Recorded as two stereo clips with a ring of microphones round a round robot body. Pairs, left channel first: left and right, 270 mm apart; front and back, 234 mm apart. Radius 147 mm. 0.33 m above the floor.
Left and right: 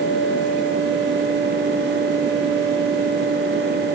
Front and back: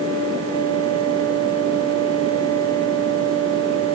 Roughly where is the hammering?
No hammering in this recording.